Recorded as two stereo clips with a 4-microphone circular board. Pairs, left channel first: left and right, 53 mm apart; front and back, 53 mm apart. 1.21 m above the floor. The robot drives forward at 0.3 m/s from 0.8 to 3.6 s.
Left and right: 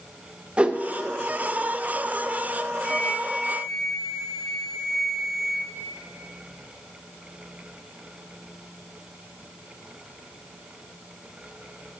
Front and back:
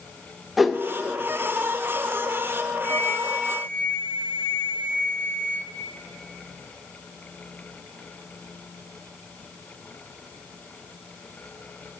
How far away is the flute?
About 1.0 m.